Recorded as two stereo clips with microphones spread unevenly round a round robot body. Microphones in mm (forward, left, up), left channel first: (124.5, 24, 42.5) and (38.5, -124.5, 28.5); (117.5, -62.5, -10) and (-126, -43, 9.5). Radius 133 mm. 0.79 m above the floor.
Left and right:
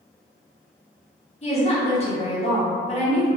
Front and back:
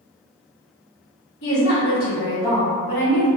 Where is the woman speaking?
10° left, 1.2 m.